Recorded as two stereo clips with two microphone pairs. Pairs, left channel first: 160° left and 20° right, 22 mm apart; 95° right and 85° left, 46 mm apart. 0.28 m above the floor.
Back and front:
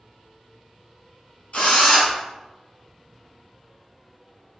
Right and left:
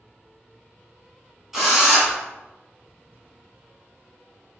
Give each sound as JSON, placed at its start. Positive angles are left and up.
{"t": 1.5, "sound": "a drill", "azimuth_deg": 170, "distance_m": 1.5}